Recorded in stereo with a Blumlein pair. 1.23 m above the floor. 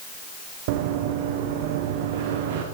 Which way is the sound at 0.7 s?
50° right.